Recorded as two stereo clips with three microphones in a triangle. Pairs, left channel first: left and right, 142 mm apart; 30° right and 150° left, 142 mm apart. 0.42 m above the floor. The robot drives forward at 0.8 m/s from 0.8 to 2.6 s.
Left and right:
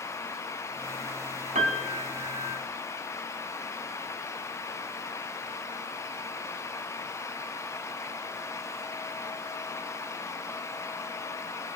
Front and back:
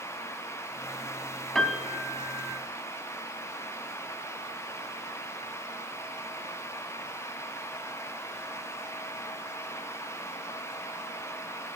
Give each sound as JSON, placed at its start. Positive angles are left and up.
{"t": 1.6, "sound": "a piano", "azimuth_deg": -115, "distance_m": 1.0}